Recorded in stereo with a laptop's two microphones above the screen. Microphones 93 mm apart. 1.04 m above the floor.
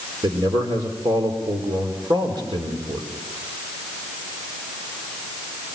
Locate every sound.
0.2 s a man speaking: 55° right (ahead or behind), 4 m